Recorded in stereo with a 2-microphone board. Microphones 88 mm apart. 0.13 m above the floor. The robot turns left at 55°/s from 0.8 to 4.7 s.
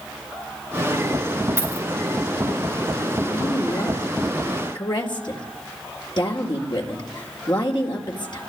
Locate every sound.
1.6 s a dropped coin: 30° right (ahead or behind), 4.5 m; by 1.9 s 45° right (ahead or behind), 4.5 m
3.3 s a woman speaking: 20° left (ahead or behind), 3.5 m; by 8.4 s 65° left (ahead or behind), 3.5 m